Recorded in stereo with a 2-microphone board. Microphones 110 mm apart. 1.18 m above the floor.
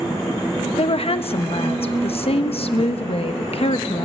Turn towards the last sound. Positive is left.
turn(degrees=60)  # may be behind; listen again after turning